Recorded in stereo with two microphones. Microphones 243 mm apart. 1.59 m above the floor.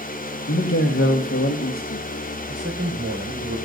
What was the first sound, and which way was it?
A man speaking, 55° left (ahead or behind).